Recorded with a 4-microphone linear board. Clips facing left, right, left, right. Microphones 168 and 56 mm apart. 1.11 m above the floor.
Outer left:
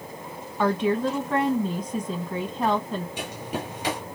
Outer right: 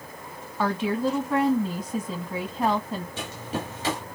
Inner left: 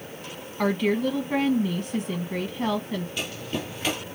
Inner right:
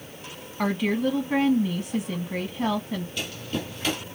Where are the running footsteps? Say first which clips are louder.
Even, even; 15° left (ahead or behind), 1.4 m.